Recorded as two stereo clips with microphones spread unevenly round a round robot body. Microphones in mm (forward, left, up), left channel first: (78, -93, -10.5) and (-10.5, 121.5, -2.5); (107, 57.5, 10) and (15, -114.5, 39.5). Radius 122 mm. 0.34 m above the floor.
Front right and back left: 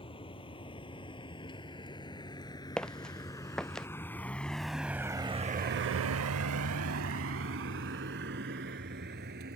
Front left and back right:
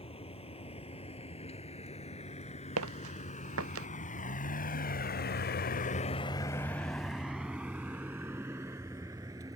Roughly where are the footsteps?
Behind right.